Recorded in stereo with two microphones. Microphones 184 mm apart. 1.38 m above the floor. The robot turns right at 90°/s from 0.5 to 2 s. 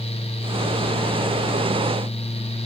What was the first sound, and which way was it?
Only background noise.